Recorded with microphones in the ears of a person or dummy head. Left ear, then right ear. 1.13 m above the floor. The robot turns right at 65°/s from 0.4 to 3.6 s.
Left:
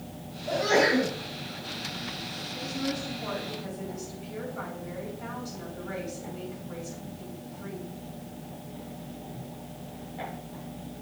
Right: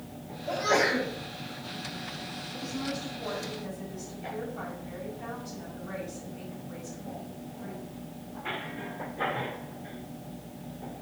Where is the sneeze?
175° right, 4.5 m; by 1.1 s 135° right, 4.5 m.